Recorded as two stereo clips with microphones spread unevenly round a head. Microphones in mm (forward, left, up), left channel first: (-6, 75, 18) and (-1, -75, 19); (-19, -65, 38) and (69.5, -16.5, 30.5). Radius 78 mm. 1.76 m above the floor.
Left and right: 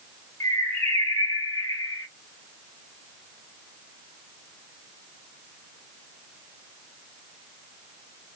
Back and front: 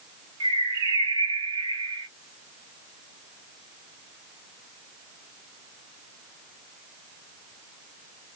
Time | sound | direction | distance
0.4 | a bird | 30° left | 1.1 m